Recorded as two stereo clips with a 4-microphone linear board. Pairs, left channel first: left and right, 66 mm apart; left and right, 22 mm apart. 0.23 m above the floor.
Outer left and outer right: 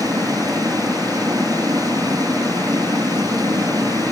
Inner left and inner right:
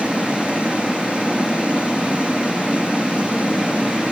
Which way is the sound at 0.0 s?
65° right (ahead or behind).